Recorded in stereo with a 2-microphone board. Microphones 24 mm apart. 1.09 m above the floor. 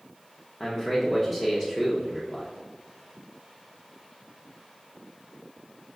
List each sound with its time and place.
0.6 s a man speaking: 25° left (ahead or behind), 0.8 m